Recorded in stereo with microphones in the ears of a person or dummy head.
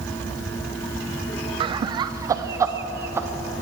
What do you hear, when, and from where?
1.6 s laughter: 35° right (ahead or behind), 0.6 m; by 3.3 s 20° right (ahead or behind), 1.4 m